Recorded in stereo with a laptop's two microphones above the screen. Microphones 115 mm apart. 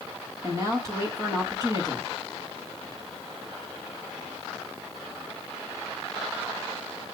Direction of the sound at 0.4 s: 30° right (ahead or behind).